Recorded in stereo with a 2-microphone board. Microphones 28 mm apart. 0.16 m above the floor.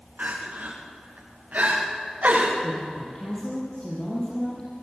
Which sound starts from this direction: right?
Crying, at 0.2 s.